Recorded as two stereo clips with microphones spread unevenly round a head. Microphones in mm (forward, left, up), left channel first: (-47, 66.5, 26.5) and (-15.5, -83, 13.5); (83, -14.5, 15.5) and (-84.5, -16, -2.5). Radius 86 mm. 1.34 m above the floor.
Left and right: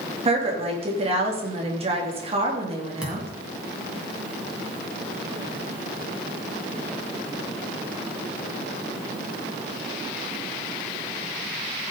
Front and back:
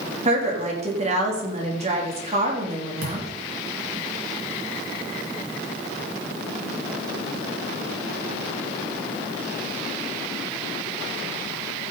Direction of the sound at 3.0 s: 165° right.